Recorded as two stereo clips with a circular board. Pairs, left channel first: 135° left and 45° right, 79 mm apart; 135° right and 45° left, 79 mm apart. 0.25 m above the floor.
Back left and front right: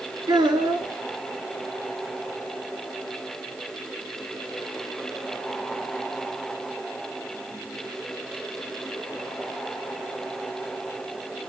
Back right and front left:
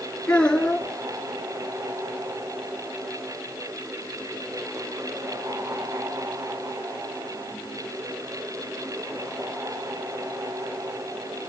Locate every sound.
0.3 s a child speaking: 60° right, 2.5 m